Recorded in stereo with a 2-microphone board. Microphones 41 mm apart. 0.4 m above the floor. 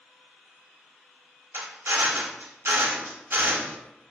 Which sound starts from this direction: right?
A drill, at 1.5 s.